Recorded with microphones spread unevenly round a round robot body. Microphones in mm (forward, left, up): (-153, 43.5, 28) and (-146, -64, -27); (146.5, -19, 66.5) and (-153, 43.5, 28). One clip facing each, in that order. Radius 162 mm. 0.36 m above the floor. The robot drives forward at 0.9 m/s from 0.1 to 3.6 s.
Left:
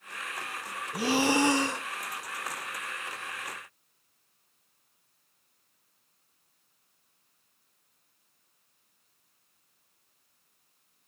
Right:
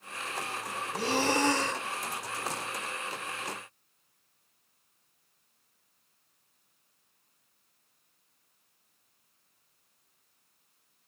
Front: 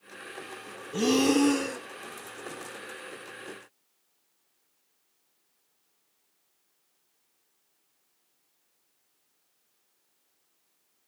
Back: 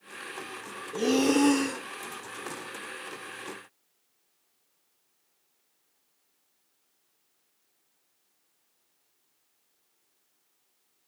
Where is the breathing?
50° right, 0.9 m; by 1.9 s 160° right, 1.1 m.